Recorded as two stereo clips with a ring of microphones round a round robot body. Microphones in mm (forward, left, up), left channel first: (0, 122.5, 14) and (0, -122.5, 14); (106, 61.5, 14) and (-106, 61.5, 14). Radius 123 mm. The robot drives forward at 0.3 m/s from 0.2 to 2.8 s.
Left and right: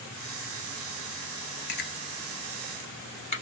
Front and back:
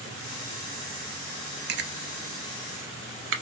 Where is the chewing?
140° left, 0.5 m; by 3.4 s 155° left, 0.8 m.